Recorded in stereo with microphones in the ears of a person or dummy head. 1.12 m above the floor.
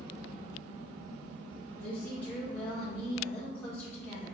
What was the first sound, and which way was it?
A woman speaking, 5° left (ahead or behind).